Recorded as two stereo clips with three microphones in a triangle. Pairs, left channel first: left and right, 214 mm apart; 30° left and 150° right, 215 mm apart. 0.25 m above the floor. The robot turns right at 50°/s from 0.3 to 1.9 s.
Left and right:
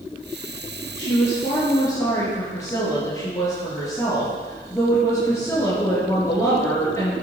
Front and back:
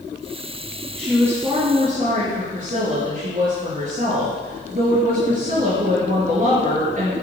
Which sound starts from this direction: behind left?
A woman speaking, at 1.0 s.